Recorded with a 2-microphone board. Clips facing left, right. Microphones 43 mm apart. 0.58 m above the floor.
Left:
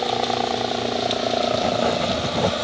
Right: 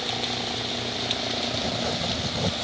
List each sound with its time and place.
0.0 s a helicopter: 45° left (ahead or behind)
1.5 s writing: 40° left (ahead or behind)